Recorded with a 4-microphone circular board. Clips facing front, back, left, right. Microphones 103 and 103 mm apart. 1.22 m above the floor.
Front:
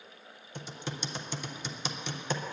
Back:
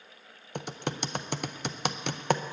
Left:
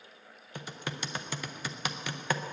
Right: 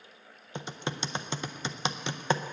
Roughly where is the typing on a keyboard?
Behind right.